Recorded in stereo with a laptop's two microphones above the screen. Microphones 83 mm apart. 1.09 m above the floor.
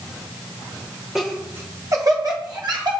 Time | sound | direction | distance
1.1 | laughter | 5° right (ahead or behind) | 1.0 m